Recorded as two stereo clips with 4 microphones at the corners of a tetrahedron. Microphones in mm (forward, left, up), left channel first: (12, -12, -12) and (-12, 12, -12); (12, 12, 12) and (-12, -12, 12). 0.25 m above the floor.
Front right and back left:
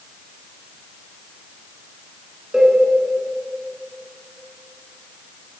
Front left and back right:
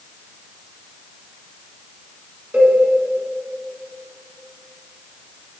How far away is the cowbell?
About 3 m.